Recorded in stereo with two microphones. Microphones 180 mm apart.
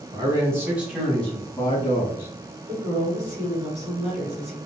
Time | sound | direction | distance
0.1 | a man speaking | 25° right (ahead or behind) | 1.4 m
2.7 | a woman speaking | 40° right (ahead or behind) | 1.9 m